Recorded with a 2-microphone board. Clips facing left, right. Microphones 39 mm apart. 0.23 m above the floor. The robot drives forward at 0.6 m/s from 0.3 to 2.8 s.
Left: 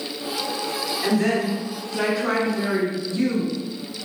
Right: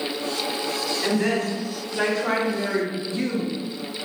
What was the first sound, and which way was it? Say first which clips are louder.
A woman speaking: left 2 dB; 5° left (ahead or behind).